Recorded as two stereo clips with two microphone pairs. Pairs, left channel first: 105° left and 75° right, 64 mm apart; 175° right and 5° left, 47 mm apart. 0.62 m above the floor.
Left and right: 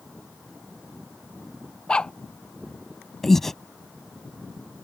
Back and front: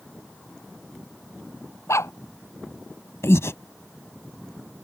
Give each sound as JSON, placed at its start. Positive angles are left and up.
{"t": 1.9, "sound": "a dog barking", "azimuth_deg": 180}
{"t": 3.2, "sound": "breathing", "azimuth_deg": -170}